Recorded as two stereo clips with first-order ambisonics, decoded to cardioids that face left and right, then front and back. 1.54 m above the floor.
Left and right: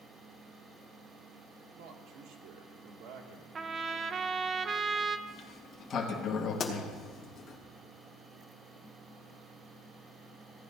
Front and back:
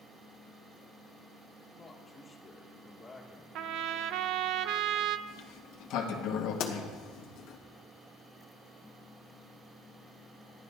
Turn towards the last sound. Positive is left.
turn(degrees=30)